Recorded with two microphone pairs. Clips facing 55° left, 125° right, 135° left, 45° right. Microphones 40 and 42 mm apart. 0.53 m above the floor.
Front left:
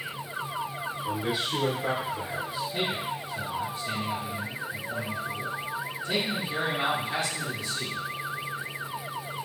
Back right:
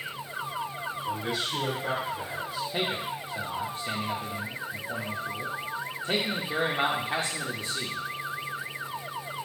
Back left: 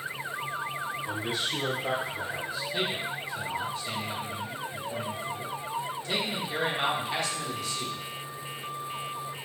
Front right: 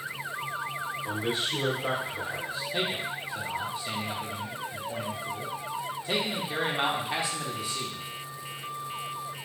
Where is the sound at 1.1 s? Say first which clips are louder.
Front left 2 dB, front right 3 dB; 5° right, 1.9 m.